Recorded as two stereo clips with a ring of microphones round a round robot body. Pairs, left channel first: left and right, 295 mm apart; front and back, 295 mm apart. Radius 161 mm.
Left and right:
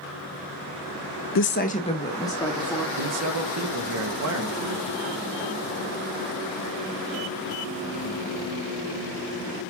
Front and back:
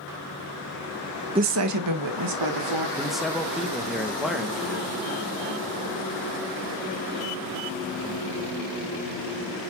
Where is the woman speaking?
110° left, 0.5 m; by 2.9 s 175° left, 2.5 m.